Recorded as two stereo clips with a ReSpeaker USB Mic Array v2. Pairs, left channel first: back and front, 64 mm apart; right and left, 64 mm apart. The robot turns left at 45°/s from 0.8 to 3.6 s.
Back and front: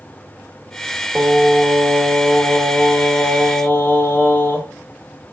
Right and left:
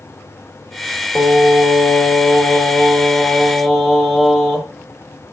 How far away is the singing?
About 0.7 m.